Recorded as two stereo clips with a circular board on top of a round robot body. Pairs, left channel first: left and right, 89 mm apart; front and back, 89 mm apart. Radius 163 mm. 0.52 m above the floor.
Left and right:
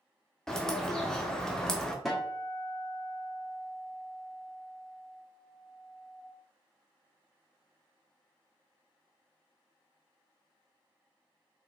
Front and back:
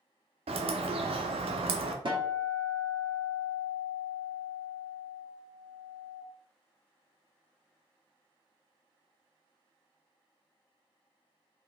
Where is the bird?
175° left, 0.5 m.